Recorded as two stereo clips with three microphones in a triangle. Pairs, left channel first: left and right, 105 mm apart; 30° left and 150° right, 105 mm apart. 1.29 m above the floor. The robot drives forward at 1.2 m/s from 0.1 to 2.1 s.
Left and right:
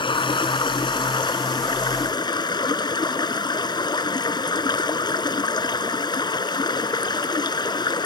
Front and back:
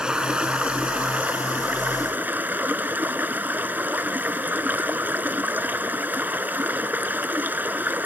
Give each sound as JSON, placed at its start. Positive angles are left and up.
{"t": 0.0, "sound": "running water", "azimuth_deg": 125}